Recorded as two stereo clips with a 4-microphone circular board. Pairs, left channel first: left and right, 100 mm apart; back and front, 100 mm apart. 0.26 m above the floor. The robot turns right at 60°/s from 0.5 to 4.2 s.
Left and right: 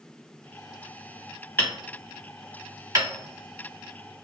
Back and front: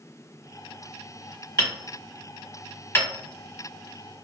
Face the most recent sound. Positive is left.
turn(degrees=-50)